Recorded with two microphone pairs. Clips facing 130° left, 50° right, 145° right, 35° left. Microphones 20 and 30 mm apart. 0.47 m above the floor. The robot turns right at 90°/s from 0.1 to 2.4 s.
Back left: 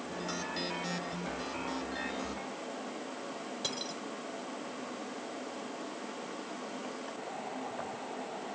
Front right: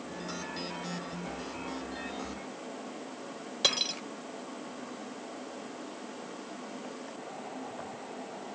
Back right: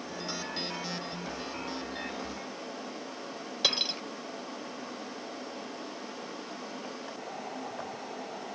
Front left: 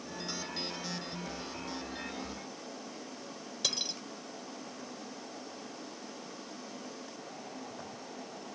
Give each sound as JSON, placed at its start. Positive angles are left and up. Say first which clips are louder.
{"t": 3.6, "sound": "cutlery clinking", "louder": "front right 11 dB, back right 6 dB", "azimuth_deg": -90}